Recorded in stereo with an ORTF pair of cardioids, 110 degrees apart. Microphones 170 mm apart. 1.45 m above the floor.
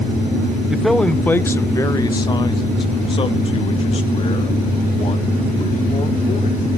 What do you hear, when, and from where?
0.7 s a man speaking: 5° right, 0.8 m; by 6.7 s 40° left, 4 m